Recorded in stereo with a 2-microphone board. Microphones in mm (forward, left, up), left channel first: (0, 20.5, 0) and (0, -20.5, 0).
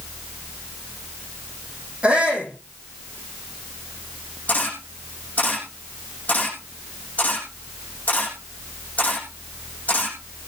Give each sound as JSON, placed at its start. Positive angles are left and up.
{"t": 2.0, "sound": "a shout", "side_deg": -30, "distance_m": 9.5}
{"t": 4.5, "sound": "a camera shutter", "side_deg": 40, "distance_m": 6.0}